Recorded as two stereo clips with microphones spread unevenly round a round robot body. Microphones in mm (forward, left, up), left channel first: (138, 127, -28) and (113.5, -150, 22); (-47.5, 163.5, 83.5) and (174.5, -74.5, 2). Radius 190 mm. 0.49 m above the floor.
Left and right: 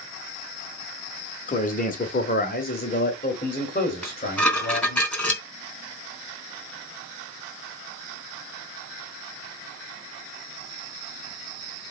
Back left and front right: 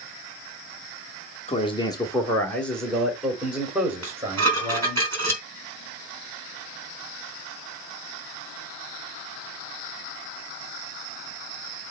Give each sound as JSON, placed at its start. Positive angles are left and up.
{"t": 1.5, "sound": "a man speaking", "azimuth_deg": 50, "distance_m": 1.3}
{"t": 4.0, "sound": "dishes clattering", "azimuth_deg": 0, "distance_m": 3.0}